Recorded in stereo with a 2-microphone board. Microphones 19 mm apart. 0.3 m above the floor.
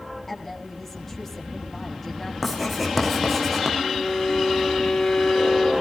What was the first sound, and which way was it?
A woman speaking, 15° left (ahead or behind).